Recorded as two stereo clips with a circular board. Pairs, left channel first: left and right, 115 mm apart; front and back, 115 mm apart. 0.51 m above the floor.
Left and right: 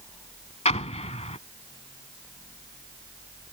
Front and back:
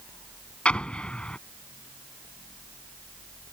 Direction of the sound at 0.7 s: 80° left.